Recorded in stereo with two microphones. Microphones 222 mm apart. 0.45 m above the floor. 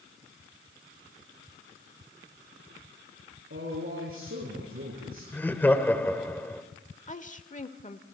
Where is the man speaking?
65° right (ahead or behind), 6.5 m; by 5.2 s 75° right (ahead or behind), 6 m.